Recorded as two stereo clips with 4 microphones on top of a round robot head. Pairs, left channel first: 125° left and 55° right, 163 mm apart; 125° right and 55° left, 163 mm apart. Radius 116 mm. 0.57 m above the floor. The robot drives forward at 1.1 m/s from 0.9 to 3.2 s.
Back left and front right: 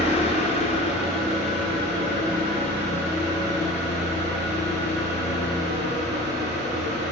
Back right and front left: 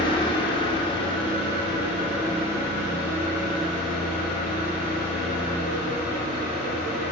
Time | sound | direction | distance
0.0 | an engine running | 175° left | 1.2 m